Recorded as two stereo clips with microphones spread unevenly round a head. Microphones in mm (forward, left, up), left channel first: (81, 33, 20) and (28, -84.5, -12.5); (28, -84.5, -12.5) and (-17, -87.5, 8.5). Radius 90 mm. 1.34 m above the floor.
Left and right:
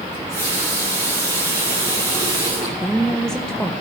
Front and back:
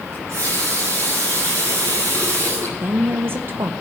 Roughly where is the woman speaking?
Behind left.